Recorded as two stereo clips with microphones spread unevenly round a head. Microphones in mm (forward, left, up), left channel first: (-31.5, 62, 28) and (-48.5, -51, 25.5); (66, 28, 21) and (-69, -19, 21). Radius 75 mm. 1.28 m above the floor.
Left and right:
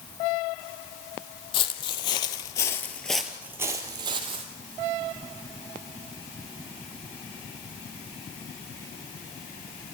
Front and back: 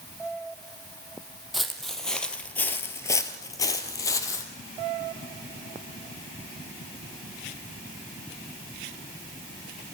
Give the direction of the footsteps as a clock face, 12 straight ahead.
8 o'clock.